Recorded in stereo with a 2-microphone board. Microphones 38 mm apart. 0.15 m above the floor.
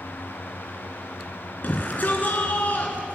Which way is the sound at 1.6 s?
45° left (ahead or behind).